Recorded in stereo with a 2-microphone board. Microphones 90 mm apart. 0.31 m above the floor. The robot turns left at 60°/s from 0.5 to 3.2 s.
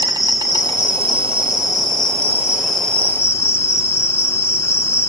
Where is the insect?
50° right, 1.8 m; by 5.1 s 150° left, 1.8 m.